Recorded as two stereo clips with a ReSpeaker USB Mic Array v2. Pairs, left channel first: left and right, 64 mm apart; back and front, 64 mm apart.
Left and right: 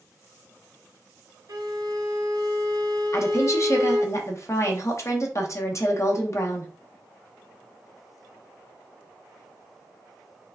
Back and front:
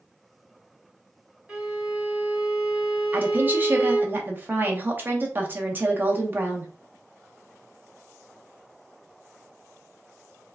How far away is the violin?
About 1.8 m.